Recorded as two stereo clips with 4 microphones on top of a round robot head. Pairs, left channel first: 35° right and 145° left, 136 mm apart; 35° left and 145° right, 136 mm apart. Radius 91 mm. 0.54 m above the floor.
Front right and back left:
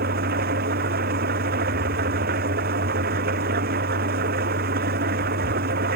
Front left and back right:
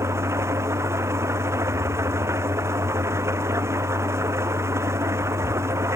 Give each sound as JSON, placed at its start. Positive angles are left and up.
{"t": 0.0, "sound": "an engine running", "azimuth_deg": 145}